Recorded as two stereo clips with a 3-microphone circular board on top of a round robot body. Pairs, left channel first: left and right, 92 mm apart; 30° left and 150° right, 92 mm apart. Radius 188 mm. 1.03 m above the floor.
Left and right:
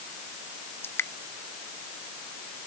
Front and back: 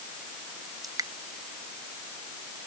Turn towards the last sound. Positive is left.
turn(degrees=155)